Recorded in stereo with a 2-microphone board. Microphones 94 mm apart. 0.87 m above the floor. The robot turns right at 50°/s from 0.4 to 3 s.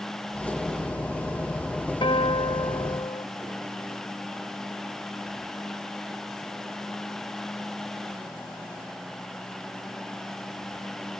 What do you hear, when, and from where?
2.0 s a guitar: 80° left, 1.4 m; by 3.2 s 130° left, 1.4 m